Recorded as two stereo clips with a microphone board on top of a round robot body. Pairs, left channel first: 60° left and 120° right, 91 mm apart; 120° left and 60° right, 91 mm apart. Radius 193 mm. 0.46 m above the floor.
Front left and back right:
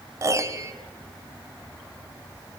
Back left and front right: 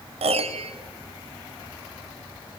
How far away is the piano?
About 0.7 m.